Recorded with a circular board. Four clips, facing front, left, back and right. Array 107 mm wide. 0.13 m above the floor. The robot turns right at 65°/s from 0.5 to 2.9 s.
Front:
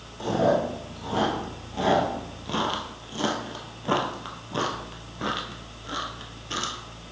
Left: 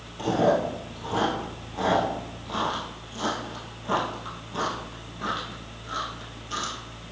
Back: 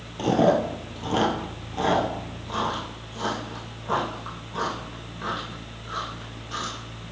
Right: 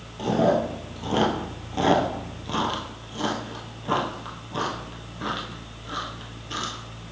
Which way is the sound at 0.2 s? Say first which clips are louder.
Right 1 dB, back 3 dB; 170° right.